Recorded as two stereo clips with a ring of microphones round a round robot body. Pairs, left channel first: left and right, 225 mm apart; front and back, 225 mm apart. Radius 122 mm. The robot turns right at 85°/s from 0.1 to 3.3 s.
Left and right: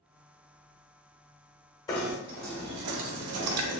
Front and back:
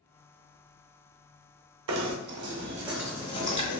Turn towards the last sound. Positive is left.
turn(degrees=-75)